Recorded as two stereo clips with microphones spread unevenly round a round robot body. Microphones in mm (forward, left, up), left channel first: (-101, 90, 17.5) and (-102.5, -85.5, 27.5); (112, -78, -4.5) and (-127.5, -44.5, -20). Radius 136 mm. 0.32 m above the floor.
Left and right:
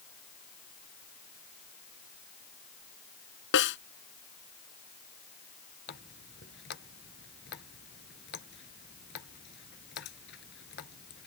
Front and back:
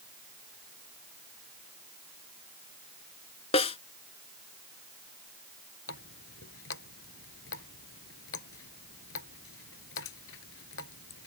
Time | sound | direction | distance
3.5 | a snare drum | 60° left | ?
5.9 | a running tap | 40° left | ?